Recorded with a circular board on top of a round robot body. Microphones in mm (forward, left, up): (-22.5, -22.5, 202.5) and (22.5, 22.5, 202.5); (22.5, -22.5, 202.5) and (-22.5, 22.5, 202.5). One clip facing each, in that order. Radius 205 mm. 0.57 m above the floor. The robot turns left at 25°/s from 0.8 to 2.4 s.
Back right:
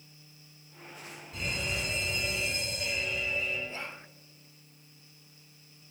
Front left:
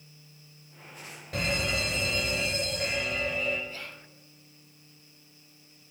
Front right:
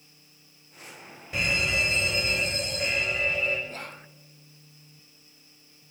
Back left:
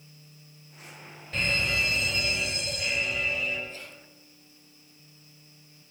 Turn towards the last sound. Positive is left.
turn(degrees=-70)